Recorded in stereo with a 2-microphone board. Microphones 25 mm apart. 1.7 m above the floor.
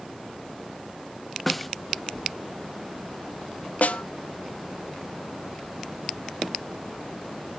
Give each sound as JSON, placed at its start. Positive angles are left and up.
{"t": 1.5, "sound": "a snare drum", "side_deg": 0, "distance_m": 0.6}
{"t": 3.8, "sound": "a snare drum", "side_deg": 70, "distance_m": 0.8}